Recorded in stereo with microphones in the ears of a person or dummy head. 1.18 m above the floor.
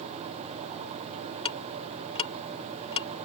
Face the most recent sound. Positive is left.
turn(degrees=35)  # may be behind; listen again after turning